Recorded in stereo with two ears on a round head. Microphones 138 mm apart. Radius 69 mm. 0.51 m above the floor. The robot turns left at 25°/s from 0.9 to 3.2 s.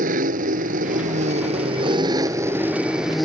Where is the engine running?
120° right; by 3.2 s straight behind.